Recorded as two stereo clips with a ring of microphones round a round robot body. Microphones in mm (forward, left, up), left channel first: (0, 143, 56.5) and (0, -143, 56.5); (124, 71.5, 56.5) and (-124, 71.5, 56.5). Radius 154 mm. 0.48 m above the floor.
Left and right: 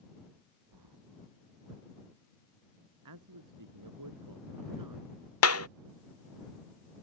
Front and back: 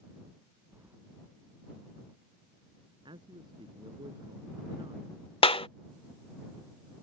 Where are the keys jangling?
100° right.